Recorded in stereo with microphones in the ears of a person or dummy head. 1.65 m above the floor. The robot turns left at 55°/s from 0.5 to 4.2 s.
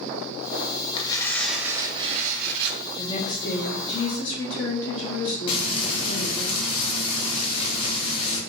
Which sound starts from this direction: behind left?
A woman speaking, at 3.0 s.